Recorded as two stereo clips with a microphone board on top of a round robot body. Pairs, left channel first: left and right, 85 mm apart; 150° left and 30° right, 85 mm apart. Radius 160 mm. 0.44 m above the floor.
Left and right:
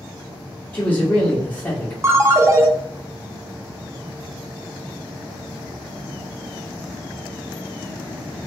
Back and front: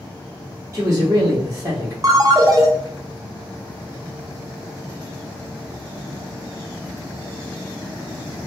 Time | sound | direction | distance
0.7 | a man speaking | 25° left | 1.2 m
2.0 | a ringtone | 50° right | 0.8 m